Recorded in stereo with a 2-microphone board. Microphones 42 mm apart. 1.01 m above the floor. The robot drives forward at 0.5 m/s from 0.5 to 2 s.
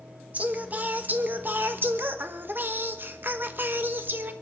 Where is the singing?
45° right (ahead or behind), 1.4 m; by 4.3 s 60° right (ahead or behind), 1.1 m.